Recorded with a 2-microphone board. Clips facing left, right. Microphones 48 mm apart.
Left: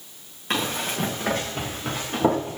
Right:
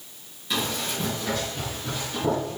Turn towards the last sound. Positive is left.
turn(degrees=60)  # may be behind; listen again after turning